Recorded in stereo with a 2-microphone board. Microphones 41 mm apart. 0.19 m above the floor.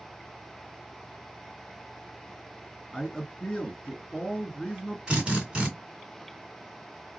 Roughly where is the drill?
Right.